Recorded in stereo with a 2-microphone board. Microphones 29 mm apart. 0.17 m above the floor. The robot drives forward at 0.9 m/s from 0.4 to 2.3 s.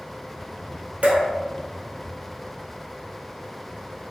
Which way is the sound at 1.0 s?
60° right (ahead or behind).